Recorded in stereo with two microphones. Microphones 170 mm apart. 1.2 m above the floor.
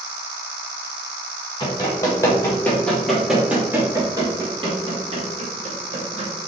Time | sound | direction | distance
1.6 | running footsteps | 25° left (ahead or behind) | 1.6 m